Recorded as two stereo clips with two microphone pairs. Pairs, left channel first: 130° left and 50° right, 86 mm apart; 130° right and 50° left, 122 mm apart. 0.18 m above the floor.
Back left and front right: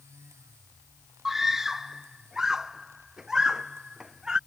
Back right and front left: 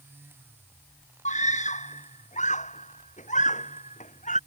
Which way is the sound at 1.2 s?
140° right.